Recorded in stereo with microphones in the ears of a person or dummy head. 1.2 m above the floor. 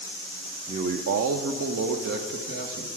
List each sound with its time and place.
0.7 s a man speaking: 25° right (ahead or behind), 0.6 m; by 2.9 s 50° right (ahead or behind), 1.3 m